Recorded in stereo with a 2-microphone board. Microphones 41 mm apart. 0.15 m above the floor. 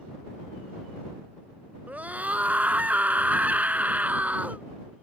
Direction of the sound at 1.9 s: 40° right (ahead or behind).